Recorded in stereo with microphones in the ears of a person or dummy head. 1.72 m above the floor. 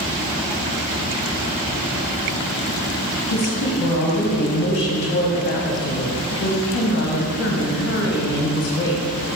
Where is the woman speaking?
55° left (ahead or behind), 1.9 m.